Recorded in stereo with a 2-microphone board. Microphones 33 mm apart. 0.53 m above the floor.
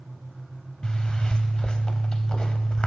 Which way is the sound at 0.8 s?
30° left (ahead or behind).